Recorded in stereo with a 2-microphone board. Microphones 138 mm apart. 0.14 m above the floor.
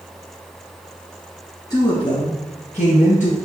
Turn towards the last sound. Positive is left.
turn(degrees=65)  # may be behind; listen again after turning